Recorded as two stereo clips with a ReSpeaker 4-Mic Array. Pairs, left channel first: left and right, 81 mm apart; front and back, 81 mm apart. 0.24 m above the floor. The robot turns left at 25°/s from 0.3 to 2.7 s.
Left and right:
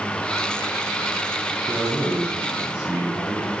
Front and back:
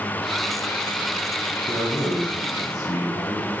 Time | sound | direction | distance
1.7 | a man speaking | 15° left | 1.7 m